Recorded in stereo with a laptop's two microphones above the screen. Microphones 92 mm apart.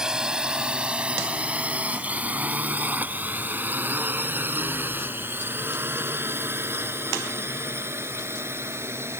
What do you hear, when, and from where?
0.0 s a drone: 5° right (ahead or behind); by 9.2 s 25° right (ahead or behind)